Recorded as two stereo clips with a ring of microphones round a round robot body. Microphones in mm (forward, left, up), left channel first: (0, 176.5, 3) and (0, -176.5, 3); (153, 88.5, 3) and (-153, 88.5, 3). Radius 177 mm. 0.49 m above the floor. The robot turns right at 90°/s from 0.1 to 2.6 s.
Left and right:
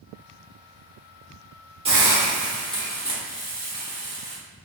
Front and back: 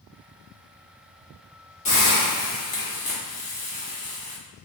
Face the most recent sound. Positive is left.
turn(degrees=30)